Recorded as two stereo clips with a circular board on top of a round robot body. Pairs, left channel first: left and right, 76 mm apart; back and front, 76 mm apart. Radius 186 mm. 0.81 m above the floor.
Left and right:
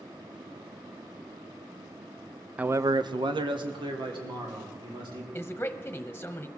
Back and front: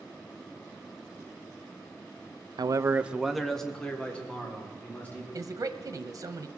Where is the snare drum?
I don't hear a snare drum.